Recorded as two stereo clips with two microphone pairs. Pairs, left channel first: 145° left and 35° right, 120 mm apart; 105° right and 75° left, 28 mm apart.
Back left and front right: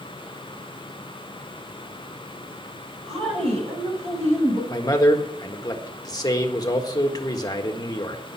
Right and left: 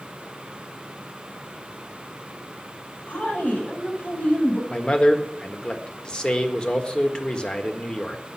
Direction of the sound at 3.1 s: 70° right.